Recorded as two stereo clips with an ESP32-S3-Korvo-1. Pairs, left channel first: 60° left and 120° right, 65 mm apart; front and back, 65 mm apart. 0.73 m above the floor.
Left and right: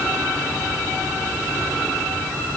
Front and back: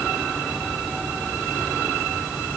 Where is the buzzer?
I don't hear a buzzer.